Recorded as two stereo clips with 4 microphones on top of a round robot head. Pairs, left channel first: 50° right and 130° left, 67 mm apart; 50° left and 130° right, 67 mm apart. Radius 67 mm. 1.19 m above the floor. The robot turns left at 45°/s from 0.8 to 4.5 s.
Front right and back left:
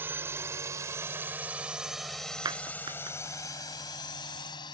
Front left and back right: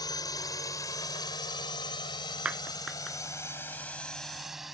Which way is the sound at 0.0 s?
70° left.